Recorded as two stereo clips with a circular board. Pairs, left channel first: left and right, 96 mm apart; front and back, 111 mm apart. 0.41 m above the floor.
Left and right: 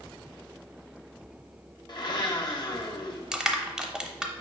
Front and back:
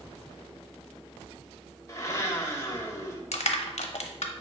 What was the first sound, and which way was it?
A blender, 55° left.